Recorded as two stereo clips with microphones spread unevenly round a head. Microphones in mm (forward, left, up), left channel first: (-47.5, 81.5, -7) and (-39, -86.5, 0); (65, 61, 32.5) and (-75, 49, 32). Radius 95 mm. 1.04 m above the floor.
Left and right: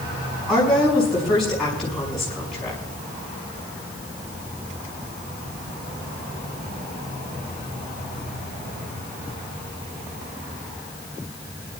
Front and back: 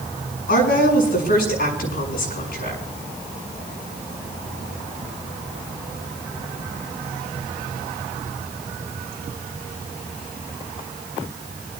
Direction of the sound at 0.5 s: 5° left.